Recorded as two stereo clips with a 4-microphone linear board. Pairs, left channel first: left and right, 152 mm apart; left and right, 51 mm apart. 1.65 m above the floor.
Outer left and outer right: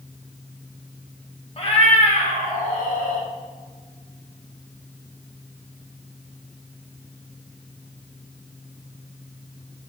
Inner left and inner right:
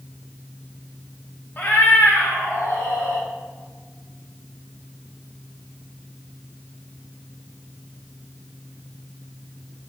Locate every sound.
1.6 s a cat meowing: 40° left (ahead or behind), 1.3 m; by 3.3 s 70° left (ahead or behind), 2.5 m